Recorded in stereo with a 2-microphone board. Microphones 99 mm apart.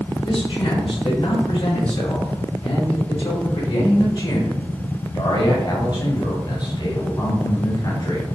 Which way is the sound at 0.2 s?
75° left (ahead or behind).